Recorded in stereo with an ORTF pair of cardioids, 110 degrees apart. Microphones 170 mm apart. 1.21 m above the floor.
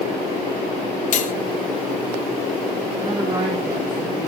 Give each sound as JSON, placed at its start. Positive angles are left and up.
{"t": 1.1, "sound": "cutlery clinking", "azimuth_deg": 50, "distance_m": 0.9}
{"t": 3.0, "sound": "a woman speaking", "azimuth_deg": -25, "distance_m": 3.5}